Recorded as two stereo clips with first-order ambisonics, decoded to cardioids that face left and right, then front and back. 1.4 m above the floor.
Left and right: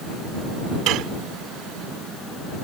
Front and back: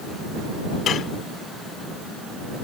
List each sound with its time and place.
0.9 s dishes clattering: 55° right